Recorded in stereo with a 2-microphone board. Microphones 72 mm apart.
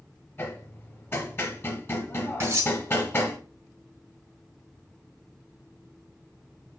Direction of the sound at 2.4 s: 35° right (ahead or behind).